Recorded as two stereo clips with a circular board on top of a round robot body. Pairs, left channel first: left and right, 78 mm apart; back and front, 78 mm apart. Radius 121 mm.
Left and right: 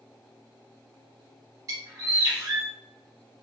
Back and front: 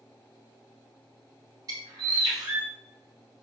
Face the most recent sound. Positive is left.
turn(degrees=-45)